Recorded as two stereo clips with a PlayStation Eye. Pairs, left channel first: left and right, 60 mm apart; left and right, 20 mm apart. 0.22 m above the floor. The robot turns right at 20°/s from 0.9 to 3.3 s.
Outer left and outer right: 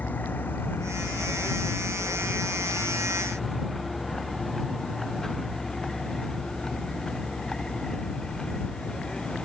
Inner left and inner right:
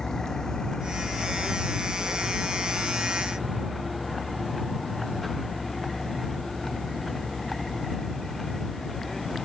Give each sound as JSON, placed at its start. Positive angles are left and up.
{"t": 0.0, "sound": "a vehicle", "side_deg": 30}